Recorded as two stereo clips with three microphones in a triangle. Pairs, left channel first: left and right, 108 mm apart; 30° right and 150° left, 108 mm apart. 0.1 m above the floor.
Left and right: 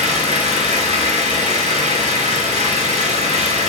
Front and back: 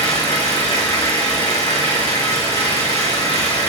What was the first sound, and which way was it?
An engine running, 85° right.